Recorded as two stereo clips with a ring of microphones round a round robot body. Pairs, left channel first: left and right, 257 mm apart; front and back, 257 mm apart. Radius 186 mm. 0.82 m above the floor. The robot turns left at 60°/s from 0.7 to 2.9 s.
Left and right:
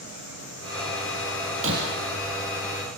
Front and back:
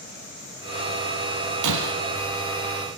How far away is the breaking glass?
About 2.5 m.